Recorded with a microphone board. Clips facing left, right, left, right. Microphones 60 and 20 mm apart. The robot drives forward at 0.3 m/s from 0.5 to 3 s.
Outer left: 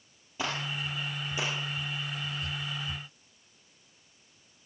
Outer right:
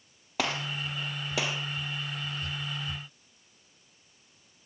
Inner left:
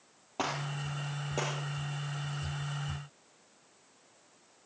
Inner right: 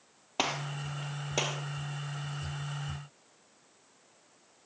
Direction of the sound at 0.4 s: 75° right (ahead or behind).